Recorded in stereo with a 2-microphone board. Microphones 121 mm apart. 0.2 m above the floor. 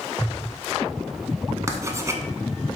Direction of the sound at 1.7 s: 25° right (ahead or behind).